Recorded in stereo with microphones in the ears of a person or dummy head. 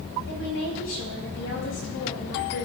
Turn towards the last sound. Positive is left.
turn(degrees=75)  # may be behind; listen again after turning